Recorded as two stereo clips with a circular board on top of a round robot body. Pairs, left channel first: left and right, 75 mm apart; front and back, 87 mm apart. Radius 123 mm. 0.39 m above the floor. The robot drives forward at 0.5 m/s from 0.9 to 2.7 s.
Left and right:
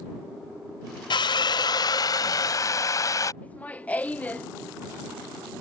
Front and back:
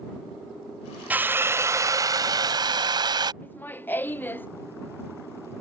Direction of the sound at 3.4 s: 45° left.